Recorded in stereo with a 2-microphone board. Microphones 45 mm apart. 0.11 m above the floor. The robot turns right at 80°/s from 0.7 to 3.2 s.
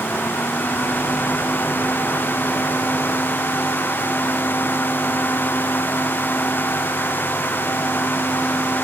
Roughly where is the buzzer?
I don't hear a buzzer.